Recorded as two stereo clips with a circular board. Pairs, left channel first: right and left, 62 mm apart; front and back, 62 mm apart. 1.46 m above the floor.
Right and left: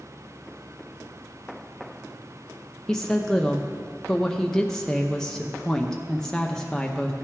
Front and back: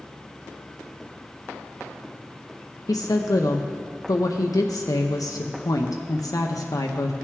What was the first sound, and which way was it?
A woman speaking, 10° right.